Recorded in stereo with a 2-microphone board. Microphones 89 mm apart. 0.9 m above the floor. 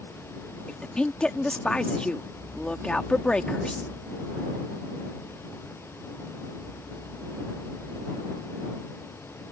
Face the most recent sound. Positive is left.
turn(degrees=10)  # may be behind; listen again after turning